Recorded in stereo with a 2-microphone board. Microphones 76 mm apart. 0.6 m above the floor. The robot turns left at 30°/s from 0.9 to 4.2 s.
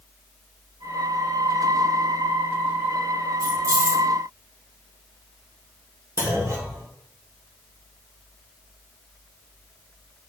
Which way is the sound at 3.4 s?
55° right (ahead or behind).